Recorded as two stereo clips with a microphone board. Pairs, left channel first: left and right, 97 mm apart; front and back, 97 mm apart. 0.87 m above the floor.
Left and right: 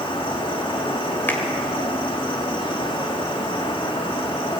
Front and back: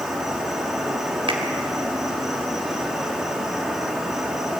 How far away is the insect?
About 3 m.